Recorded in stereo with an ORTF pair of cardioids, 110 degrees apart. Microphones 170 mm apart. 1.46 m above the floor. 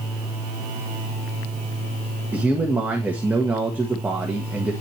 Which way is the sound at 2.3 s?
10° right.